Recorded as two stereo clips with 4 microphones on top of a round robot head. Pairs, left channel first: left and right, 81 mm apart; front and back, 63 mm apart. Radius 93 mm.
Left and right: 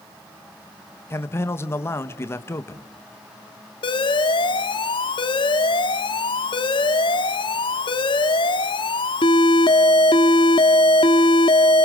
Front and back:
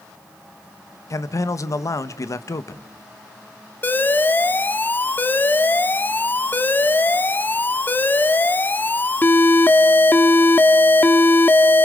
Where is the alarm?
60° left, 1.5 m.